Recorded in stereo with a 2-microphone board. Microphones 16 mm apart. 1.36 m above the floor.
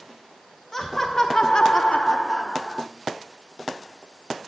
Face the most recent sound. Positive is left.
turn(degrees=25)  # may be behind; listen again after turning